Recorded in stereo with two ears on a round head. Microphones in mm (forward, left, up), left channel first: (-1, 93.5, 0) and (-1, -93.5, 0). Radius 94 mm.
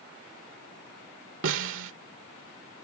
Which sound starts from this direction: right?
A snare drum, at 1.4 s.